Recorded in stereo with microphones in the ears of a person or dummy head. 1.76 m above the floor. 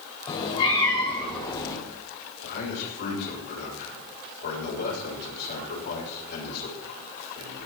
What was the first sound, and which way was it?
A cat meowing, 30° left (ahead or behind).